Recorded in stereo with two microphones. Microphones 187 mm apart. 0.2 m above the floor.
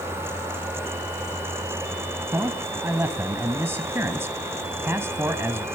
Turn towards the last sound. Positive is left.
turn(degrees=-15)  # may be behind; listen again after turning